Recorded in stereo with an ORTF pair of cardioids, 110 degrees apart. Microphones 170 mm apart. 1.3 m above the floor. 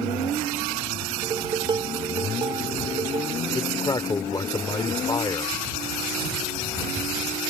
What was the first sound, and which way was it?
Dishes clattering, 30° right.